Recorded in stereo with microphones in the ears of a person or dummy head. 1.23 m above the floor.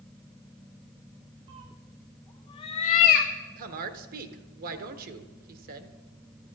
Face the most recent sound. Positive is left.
turn(degrees=-45)  # may be behind; listen again after turning